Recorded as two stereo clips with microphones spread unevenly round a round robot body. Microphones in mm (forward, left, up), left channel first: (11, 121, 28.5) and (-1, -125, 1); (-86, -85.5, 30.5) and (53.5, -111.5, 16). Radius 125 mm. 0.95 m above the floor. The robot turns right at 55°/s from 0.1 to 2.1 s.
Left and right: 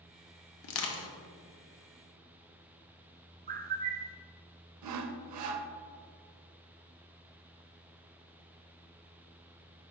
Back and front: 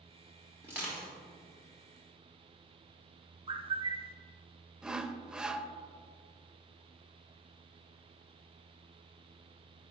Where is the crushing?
70° left, 0.8 m; by 1.1 s 95° left, 0.8 m.